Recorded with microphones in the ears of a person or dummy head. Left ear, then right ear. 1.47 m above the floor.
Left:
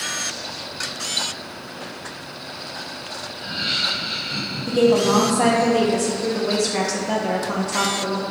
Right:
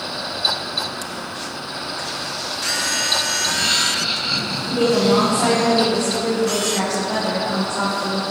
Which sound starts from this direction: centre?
Laughter, at 3.3 s.